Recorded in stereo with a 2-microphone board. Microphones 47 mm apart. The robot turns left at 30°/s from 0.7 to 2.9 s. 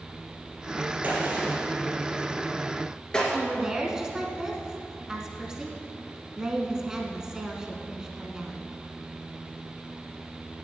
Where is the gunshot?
30° right (ahead or behind), 2.5 m; by 3.2 s 15° left (ahead or behind), 2.5 m.